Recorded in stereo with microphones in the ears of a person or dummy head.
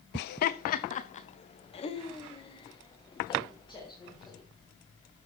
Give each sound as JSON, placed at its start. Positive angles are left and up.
{"t": 0.1, "sound": "laughter", "side_deg": 60, "distance_m": 0.6}